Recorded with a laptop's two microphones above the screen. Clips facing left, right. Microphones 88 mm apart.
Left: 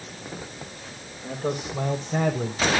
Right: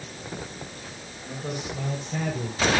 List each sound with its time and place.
1.2 s a man speaking: 40° left (ahead or behind), 4 m; by 2.6 s 30° left (ahead or behind), 3.5 m